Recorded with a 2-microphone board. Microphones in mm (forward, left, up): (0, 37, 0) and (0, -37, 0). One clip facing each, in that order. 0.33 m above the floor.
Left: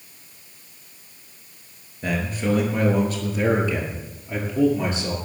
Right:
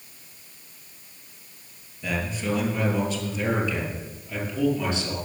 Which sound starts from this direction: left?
A man speaking, at 2.0 s.